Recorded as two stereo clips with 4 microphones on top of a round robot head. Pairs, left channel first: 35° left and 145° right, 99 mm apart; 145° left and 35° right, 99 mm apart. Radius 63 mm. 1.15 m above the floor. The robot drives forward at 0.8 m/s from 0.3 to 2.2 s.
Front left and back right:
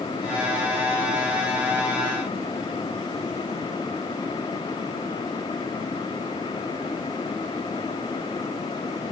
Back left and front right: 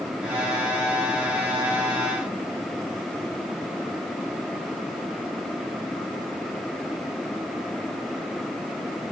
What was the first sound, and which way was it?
Only background noise.